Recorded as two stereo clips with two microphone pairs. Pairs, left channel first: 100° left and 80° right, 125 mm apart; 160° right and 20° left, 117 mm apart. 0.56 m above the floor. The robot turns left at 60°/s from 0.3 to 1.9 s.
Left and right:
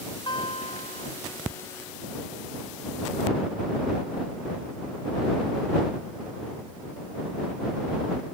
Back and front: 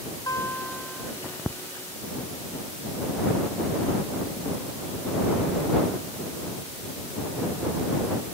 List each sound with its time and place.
0.3 s a guitar: 140° left; by 1.1 s 95° left